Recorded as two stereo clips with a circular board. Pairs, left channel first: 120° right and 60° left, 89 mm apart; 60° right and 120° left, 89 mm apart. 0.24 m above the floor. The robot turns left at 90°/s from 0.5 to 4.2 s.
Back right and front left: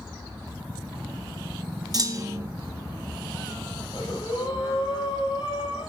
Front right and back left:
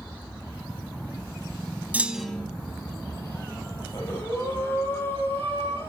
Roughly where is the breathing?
Right.